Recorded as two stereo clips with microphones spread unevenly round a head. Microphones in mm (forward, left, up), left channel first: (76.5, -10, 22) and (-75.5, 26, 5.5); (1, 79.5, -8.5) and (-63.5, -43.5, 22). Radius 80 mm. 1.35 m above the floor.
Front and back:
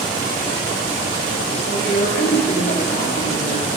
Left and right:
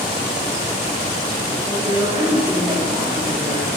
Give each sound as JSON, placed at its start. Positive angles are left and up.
{"t": 1.7, "sound": "a woman speaking", "azimuth_deg": -55, "distance_m": 2.5}